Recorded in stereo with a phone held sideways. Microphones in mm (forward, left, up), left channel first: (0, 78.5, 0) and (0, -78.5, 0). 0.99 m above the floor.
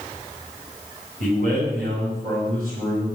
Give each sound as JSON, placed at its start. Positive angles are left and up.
{"t": 1.2, "sound": "a man speaking", "side_deg": -75, "distance_m": 6.0}